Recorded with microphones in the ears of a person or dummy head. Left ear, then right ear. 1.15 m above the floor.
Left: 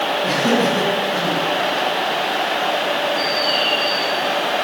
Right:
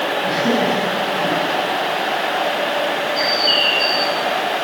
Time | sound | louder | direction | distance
0.2 | laughter | even | 45° left (ahead or behind) | 9.5 m
3.2 | a bird | right 2 dB | 40° right (ahead or behind) | 1.7 m